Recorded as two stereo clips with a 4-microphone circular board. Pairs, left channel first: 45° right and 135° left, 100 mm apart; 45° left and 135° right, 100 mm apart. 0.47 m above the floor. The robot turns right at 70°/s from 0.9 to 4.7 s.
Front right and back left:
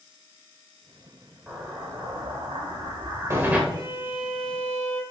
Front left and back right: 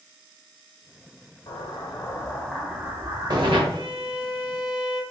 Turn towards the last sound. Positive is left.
turn(degrees=-110)